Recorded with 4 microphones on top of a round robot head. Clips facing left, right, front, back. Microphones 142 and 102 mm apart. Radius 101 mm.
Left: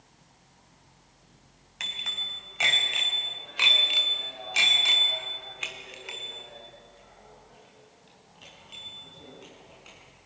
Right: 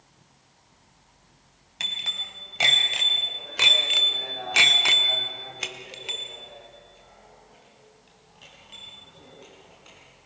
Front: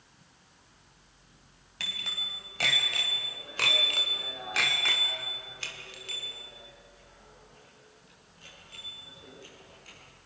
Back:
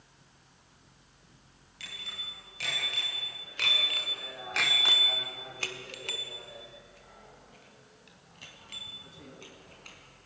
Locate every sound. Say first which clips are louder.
1.8 s a bicycle bell: right 2 dB, front 5 dB; 35° right, 4 m; by 10.0 s 175° left, 6 m